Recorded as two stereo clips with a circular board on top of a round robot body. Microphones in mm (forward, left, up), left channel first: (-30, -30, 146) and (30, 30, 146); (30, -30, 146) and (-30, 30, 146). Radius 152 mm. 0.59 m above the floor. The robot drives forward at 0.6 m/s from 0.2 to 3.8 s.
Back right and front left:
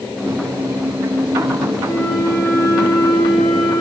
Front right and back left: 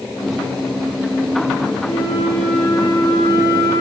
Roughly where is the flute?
Right.